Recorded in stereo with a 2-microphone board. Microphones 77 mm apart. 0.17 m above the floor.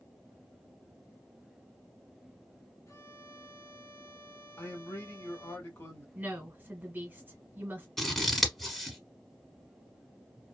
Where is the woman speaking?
25° right (ahead or behind), 1.3 m.